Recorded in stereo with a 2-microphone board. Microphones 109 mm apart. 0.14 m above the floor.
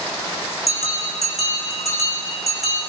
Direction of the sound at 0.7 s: 75° left (ahead or behind).